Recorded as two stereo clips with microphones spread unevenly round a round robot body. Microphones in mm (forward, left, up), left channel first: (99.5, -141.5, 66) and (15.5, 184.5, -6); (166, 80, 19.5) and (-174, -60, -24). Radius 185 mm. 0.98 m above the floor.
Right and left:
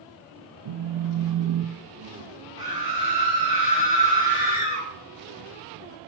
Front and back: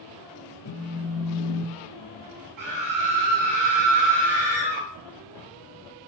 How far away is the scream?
About 8 m.